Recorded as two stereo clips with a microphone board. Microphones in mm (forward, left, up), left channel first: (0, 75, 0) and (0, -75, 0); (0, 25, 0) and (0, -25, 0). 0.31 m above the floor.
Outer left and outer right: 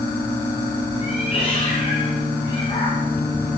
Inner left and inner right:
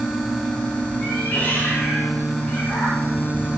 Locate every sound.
1.0 s a cat meowing: 40° left (ahead or behind), 3 m; by 3.1 s 25° left (ahead or behind), 6 m